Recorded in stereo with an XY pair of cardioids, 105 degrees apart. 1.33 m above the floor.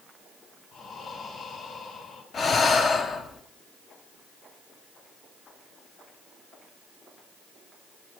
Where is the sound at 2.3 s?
45° left, 0.9 m.